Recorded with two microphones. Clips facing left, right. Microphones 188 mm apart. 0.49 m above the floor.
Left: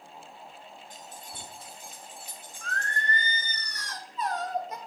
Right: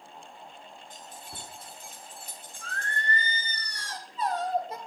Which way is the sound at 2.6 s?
30° right (ahead or behind).